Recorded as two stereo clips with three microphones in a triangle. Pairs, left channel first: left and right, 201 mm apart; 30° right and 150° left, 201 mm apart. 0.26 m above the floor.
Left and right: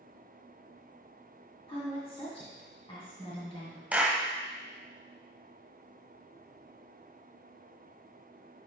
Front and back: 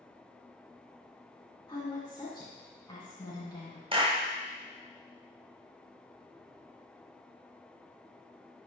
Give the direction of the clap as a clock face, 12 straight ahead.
6 o'clock.